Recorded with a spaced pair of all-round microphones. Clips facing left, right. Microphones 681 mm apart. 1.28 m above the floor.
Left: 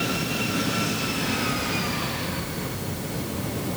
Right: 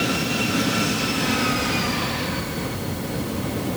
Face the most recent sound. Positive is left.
No sound to turn to.